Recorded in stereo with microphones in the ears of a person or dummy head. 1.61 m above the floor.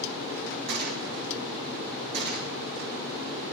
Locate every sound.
0.7 s a gunshot: 55° right (ahead or behind), 2 m